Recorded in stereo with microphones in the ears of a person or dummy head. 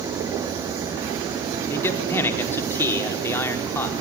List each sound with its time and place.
1.7 s a man speaking: 15° left (ahead or behind), 4 m